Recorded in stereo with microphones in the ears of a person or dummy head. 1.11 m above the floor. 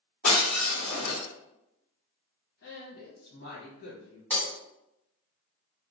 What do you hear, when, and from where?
0.2 s breaking glass: 40° left (ahead or behind), 1.7 m
2.6 s a woman speaking: 70° left (ahead or behind), 1.3 m
4.3 s breaking glass: 5° left (ahead or behind), 1.6 m